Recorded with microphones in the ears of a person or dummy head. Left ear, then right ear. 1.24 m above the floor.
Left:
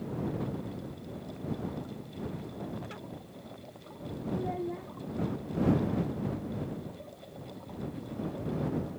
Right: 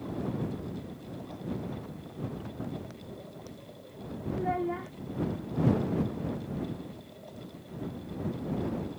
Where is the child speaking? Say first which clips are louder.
Right 5 dB; 50° right (ahead or behind).